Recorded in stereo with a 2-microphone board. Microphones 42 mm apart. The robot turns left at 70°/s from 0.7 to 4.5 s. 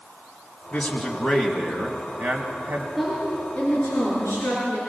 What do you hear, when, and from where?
0.7 s a man speaking: 40° left, 2 m; by 2.9 s 110° right, 2 m
3.0 s a woman speaking: straight behind, 5 m; by 4.8 s 70° left, 5 m